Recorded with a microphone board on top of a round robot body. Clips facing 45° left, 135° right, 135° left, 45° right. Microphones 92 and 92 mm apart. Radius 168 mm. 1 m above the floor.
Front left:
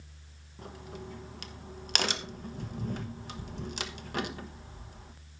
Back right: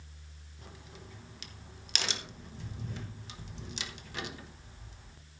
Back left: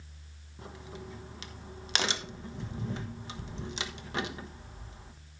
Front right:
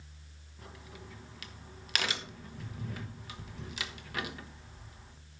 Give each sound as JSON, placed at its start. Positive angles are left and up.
{"t": 0.6, "sound": "a crack", "azimuth_deg": 75, "distance_m": 1.3}